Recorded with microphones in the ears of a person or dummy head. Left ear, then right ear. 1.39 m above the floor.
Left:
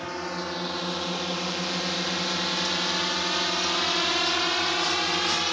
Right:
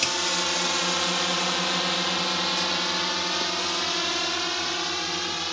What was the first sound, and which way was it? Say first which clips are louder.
A drone: right 7 dB; 70° right (ahead or behind).